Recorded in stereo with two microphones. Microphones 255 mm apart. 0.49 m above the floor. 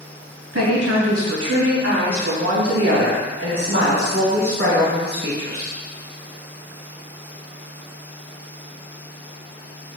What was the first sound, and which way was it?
A woman speaking, 70° right (ahead or behind).